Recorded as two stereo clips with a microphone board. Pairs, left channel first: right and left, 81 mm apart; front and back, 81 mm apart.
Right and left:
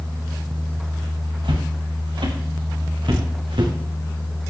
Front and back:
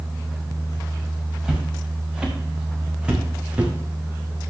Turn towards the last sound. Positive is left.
turn(degrees=105)